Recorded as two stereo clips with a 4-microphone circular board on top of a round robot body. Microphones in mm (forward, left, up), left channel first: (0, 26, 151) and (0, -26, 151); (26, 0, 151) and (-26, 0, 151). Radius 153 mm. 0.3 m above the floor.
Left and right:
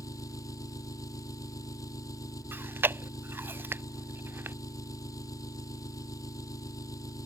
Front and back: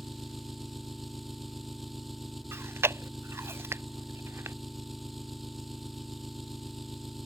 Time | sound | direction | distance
0.0 | an engine running | 90° left | ?
2.5 | chewing | 140° right | ?